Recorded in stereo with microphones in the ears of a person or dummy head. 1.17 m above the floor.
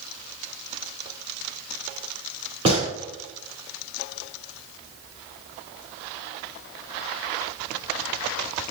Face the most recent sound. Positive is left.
turn(degrees=-40)  # may be behind; listen again after turning